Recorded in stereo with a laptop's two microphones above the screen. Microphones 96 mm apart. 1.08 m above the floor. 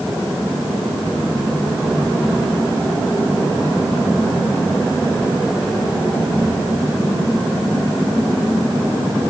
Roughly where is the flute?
No flute in this recording.